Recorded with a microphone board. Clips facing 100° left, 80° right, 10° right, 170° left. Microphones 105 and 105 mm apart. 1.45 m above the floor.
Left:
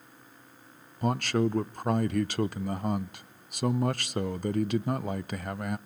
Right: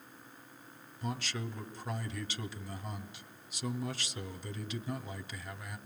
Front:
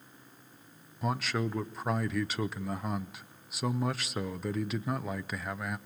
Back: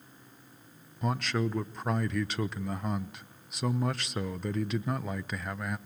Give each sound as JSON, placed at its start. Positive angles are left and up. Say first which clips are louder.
{"t": 1.0, "sound": "a man speaking", "louder": "left 13 dB, back 1 dB", "azimuth_deg": 75, "distance_m": 0.6}